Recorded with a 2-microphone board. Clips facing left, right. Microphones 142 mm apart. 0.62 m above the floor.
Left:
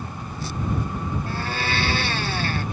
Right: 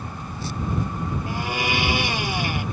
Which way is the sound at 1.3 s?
10° right (ahead or behind).